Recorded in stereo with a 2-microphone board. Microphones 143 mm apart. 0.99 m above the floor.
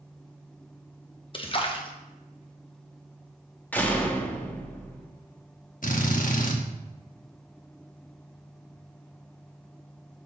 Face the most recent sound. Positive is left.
turn(degrees=65)  # may be behind; listen again after turning